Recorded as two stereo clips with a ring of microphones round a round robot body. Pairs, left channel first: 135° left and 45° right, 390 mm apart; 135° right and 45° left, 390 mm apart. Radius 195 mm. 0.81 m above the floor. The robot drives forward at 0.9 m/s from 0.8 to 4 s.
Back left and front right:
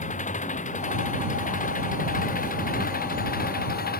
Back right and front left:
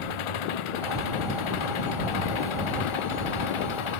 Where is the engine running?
150° right; by 4.0 s 155° right.